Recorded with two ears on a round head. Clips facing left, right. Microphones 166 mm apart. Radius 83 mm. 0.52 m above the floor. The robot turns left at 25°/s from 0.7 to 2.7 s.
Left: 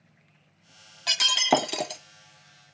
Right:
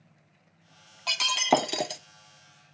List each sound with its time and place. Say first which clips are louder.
1.1 s breaking glass: even; 10° left (ahead or behind), 0.6 m; by 2.0 s 10° right (ahead or behind), 0.6 m